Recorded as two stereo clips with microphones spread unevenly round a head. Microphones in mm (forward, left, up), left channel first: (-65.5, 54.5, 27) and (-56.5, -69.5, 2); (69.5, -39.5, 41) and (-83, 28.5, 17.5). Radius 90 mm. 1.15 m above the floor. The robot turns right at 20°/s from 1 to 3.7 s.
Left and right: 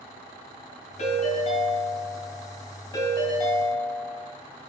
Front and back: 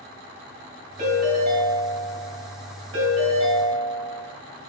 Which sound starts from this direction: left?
A ringtone, at 1.0 s.